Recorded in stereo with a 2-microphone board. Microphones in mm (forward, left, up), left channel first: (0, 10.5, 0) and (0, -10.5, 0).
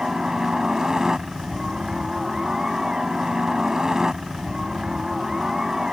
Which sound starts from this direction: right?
A helicopter, at 0.0 s.